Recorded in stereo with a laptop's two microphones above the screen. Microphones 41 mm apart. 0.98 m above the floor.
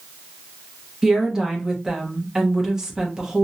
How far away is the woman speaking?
About 0.7 m.